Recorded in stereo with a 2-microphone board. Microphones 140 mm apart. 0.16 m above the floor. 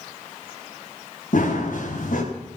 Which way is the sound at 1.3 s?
70° left (ahead or behind).